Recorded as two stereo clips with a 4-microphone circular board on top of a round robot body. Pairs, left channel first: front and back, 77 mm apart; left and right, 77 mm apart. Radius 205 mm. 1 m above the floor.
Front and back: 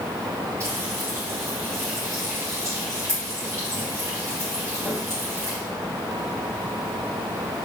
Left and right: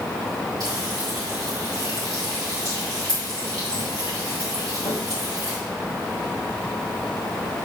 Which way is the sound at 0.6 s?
125° right.